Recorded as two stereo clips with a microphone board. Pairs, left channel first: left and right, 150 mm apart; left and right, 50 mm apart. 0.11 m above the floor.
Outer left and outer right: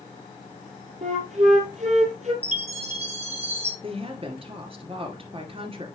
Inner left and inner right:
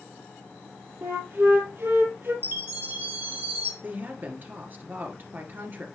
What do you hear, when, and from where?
1.0 s a flute: 50° right (ahead or behind), 2 m
2.4 s a chime: 45° right (ahead or behind), 2 m
3.8 s a woman speaking: 40° right (ahead or behind), 2 m